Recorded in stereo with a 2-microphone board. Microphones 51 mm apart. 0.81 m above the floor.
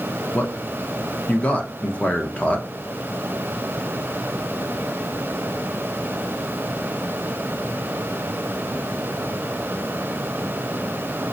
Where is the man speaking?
25° left (ahead or behind), 0.7 m.